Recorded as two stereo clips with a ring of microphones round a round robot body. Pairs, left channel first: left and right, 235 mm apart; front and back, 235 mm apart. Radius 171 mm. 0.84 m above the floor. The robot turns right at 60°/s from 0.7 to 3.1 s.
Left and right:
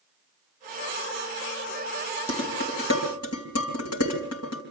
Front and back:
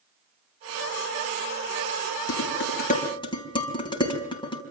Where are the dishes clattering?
20° left, 4.5 m; by 4.6 s 70° left, 4.5 m.